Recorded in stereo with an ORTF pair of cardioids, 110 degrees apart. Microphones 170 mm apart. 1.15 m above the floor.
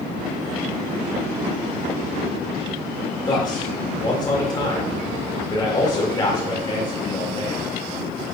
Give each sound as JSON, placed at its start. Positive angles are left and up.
{"t": 3.3, "sound": "a man speaking", "azimuth_deg": 25, "distance_m": 2.5}